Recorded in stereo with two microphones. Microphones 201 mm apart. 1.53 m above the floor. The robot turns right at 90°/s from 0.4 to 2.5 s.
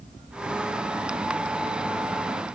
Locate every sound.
Only background noise.